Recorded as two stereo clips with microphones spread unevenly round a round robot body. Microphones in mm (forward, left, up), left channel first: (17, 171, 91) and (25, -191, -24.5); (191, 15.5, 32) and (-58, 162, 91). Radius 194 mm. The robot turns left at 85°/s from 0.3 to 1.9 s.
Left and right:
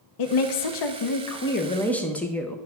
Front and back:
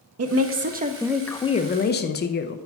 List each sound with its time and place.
0.2 s a woman speaking: 125° left, 0.8 m; by 2.6 s 15° right, 0.8 m